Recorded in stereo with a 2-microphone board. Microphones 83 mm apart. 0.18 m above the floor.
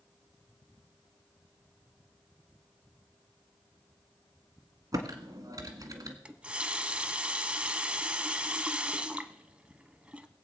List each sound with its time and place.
4.9 s typing on a keyboard: 50° right (ahead or behind), 1.7 m
6.2 s a running tap: 15° right (ahead or behind), 0.8 m